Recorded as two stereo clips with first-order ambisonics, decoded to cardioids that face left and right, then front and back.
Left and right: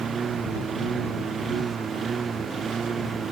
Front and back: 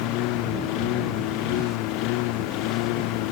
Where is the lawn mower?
25° right; by 3.3 s 20° right.